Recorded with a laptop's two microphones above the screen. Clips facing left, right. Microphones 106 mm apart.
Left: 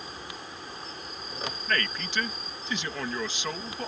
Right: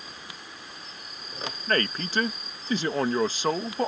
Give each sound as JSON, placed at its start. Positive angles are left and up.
{"t": 0.0, "sound": "an insect", "side_deg": 40}
{"t": 1.7, "sound": "a man speaking", "side_deg": -40}